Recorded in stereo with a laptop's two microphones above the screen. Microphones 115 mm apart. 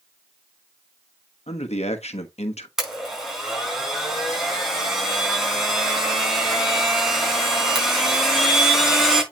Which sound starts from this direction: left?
A man speaking, at 1.5 s.